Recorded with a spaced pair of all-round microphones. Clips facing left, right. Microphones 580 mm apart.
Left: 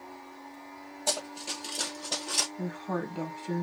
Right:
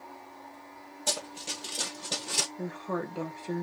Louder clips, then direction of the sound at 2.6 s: Even; 15° left (ahead or behind).